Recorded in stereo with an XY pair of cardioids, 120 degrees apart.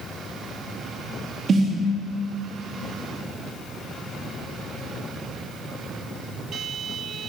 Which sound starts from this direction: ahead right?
A snare drum, at 1.5 s.